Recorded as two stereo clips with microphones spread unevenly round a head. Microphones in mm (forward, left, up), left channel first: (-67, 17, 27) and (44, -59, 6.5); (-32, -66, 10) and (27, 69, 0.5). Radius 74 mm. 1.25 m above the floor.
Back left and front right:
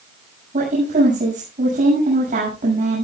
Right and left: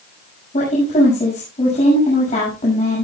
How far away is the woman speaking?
About 7 m.